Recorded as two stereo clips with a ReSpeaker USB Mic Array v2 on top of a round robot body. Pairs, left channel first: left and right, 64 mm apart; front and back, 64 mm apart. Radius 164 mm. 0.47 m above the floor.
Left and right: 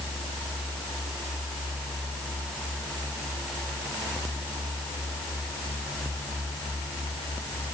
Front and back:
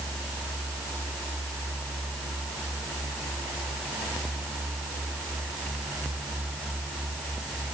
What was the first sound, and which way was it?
Only background noise.